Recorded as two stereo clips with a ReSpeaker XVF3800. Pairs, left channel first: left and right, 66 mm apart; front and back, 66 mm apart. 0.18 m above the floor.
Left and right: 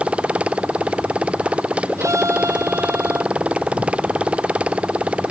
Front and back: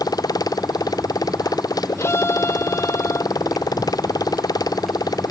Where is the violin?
50° right.